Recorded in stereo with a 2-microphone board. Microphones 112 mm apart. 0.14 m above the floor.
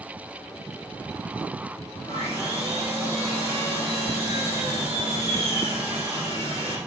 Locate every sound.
2.1 s sawing: 20° right (ahead or behind), 4.5 m